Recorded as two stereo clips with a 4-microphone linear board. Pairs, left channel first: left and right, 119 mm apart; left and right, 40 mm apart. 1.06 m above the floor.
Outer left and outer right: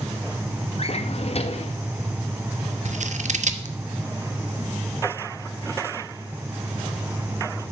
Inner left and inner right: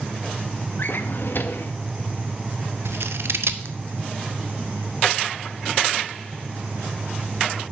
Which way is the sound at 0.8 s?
55° left (ahead or behind).